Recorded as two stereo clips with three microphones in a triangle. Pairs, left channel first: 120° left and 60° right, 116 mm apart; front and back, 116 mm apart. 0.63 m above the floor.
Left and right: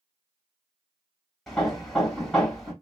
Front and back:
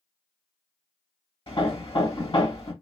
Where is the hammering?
35° left, 2.5 m.